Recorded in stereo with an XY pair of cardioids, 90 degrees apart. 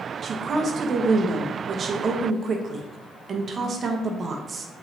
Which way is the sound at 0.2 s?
50° right.